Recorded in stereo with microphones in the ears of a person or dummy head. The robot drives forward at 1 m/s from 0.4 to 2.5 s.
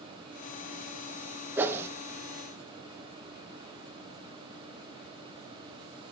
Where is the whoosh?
10° right (ahead or behind), 1.2 m; by 1.9 s 15° right (ahead or behind), 0.9 m.